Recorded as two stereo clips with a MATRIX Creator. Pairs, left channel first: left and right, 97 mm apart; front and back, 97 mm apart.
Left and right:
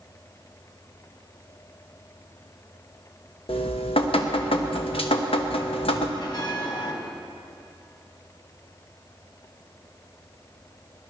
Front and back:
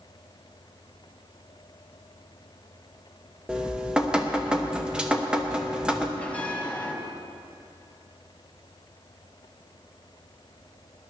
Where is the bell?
75° left, 1.6 m.